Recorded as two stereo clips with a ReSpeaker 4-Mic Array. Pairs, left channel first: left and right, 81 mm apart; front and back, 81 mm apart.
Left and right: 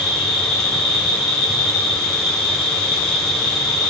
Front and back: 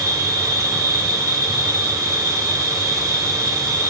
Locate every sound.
0.0 s an insect: 175° left, 2.0 m